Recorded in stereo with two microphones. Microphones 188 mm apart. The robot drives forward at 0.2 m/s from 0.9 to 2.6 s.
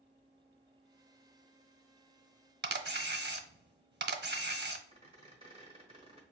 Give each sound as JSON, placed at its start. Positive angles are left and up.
{"t": 2.6, "sound": "a camera shutter", "side_deg": -70, "distance_m": 0.5}
{"t": 4.9, "sound": "a squeak", "side_deg": -30, "distance_m": 1.3}